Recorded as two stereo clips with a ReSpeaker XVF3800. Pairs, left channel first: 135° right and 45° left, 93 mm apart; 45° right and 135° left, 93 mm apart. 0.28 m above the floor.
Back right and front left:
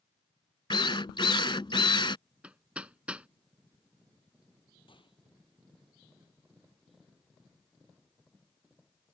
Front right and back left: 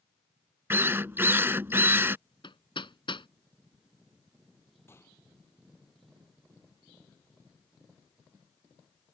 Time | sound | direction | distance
0.7 | a drill | 160° right | ?
2.4 | hammering | 30° right | ?
4.9 | a gunshot | 110° right | ?